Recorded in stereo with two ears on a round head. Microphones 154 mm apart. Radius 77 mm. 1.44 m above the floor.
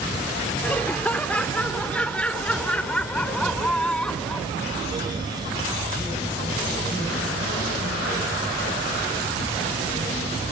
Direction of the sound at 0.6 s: 10° left (ahead or behind).